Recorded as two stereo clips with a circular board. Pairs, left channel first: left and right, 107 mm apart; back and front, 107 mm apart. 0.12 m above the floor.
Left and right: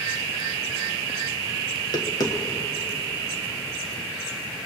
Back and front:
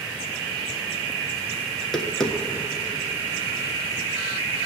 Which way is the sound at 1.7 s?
95° left.